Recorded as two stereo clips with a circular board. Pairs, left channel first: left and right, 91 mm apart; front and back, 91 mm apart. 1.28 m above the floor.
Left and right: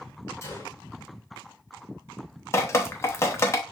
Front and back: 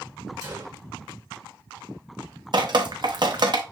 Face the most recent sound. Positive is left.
turn(degrees=150)